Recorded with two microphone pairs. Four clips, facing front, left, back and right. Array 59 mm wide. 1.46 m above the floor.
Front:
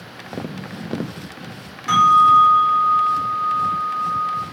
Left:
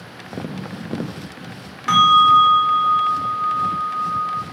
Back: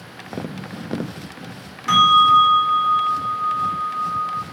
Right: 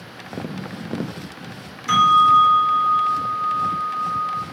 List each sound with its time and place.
1.9 s a bell: 95° left, 1.9 m